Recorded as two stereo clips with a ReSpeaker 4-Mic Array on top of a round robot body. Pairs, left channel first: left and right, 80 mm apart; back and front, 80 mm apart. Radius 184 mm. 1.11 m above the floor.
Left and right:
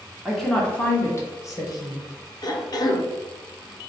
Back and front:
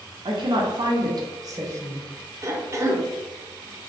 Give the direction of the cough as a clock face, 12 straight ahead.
10 o'clock.